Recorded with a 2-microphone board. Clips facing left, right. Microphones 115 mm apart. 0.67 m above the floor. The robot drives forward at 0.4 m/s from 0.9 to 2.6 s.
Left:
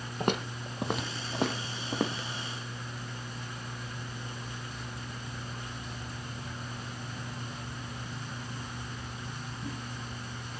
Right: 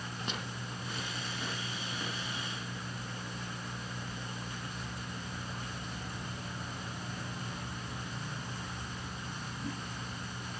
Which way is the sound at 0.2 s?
55° left (ahead or behind).